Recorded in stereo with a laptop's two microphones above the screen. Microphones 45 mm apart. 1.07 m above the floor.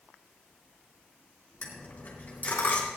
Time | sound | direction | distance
1.6 | a dropped coin | 40° left (ahead or behind) | 3 m